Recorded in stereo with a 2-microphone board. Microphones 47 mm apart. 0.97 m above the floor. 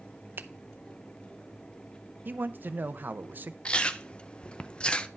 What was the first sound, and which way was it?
A finger snap, 45° right (ahead or behind).